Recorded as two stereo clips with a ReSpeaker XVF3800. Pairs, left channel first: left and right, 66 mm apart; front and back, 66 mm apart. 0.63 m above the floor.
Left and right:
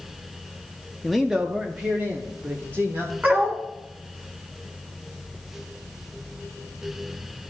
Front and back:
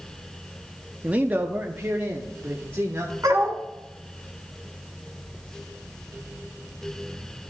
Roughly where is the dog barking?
Behind right.